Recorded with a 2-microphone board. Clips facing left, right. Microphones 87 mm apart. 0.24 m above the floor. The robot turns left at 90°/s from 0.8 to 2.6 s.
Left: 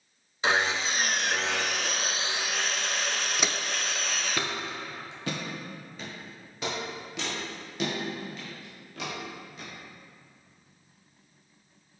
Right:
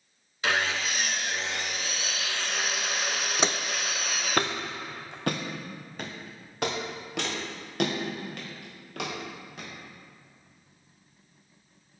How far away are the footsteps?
About 0.6 m.